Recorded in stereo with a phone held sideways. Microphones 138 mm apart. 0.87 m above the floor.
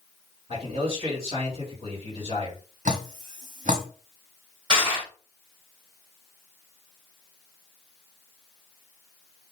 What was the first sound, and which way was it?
A man speaking, 45° right (ahead or behind).